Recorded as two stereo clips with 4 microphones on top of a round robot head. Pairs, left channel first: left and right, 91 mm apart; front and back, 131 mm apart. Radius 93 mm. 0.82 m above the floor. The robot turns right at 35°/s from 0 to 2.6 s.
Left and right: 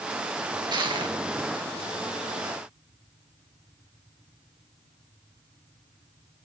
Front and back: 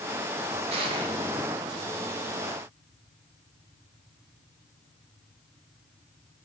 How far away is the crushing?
About 3.5 m.